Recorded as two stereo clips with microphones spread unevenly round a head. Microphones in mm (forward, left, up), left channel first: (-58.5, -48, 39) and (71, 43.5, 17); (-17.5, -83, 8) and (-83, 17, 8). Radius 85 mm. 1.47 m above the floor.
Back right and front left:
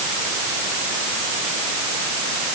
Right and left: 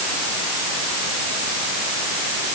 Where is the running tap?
I don't hear a running tap.